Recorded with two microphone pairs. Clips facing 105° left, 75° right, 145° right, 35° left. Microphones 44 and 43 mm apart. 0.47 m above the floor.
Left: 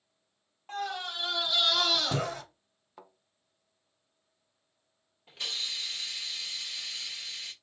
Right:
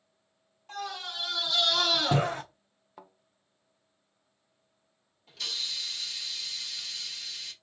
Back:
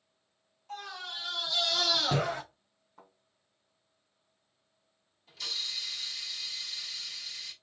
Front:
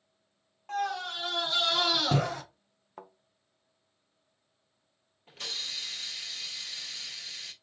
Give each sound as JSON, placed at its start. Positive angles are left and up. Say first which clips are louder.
{"t": 0.7, "sound": "a scream", "louder": "left 2 dB, front 9 dB", "azimuth_deg": 55, "distance_m": 1.5}
{"t": 3.0, "sound": "a thud", "louder": "right 1 dB, front 10 dB", "azimuth_deg": 15, "distance_m": 0.6}
{"t": 5.3, "sound": "a hiss", "louder": "even, even", "azimuth_deg": 55, "distance_m": 1.4}